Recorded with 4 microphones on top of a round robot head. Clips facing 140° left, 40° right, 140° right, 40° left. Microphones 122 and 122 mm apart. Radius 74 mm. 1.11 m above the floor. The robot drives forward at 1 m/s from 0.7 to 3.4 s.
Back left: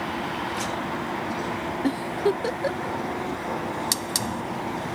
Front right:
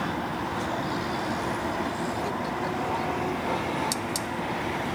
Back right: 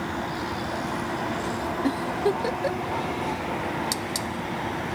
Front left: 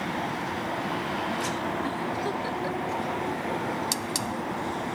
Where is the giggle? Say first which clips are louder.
Back left 6 dB, back right 5 dB; 165° left; by 3.0 s 170° left.